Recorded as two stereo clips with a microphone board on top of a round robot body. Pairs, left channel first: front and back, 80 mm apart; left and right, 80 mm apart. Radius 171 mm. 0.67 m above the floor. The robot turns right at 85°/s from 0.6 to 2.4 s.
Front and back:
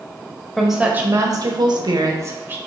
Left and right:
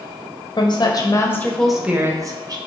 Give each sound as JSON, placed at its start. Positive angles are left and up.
{"t": 0.6, "sound": "a woman speaking", "azimuth_deg": 85, "distance_m": 1.0}